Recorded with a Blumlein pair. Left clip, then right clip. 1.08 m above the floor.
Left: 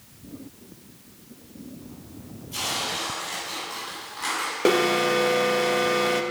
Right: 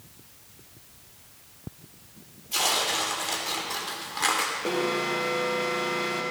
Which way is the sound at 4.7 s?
55° left.